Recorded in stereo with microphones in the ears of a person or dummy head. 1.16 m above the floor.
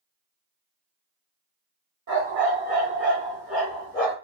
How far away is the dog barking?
About 1.4 m.